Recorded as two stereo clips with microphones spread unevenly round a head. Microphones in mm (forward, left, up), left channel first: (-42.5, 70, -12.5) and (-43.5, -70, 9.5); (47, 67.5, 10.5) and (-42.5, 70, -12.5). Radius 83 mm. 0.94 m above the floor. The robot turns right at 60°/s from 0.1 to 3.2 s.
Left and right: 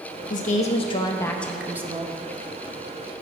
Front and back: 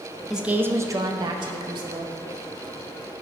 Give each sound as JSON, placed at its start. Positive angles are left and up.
{"t": 0.3, "sound": "a woman speaking", "azimuth_deg": 100, "distance_m": 0.7}